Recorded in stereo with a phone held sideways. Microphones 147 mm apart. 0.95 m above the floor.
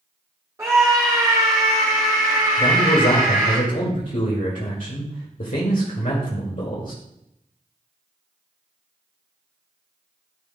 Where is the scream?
20° right (ahead or behind), 1.7 m; by 3.6 s 65° right (ahead or behind), 1.9 m.